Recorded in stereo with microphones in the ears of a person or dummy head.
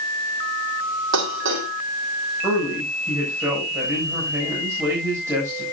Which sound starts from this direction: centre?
A man speaking, at 2.4 s.